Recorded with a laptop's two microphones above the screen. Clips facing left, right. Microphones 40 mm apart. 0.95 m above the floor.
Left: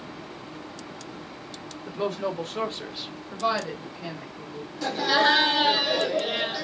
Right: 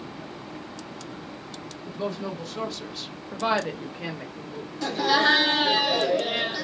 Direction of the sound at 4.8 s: 5° left (ahead or behind).